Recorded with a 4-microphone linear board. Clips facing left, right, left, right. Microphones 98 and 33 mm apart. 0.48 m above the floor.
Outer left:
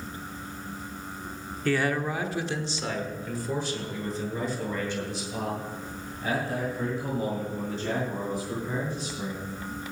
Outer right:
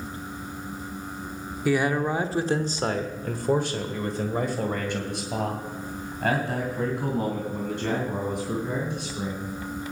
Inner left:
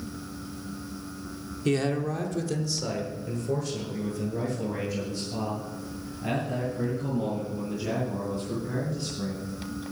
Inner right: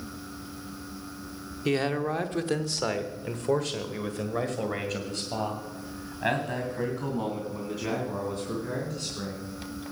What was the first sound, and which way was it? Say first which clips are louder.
A man speaking: outer right 3 dB, even; 10° right (ahead or behind).